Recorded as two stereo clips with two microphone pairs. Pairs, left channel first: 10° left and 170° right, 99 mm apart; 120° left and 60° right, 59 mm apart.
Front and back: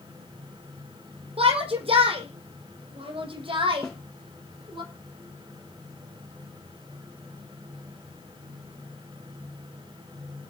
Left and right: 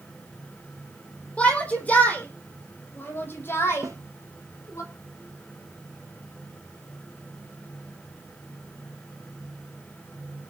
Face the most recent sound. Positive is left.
turn(degrees=-75)